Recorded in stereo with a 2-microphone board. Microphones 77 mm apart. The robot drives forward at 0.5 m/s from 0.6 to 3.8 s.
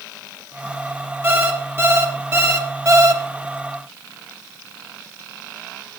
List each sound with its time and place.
1.2 s an alarm clock: 30° right (ahead or behind), 2 m; by 3.2 s 50° right (ahead or behind), 1.3 m